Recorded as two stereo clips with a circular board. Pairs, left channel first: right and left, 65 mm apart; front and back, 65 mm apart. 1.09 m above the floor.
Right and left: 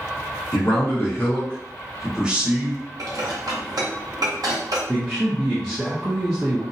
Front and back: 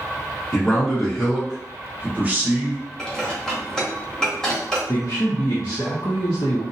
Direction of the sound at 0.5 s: 75° right.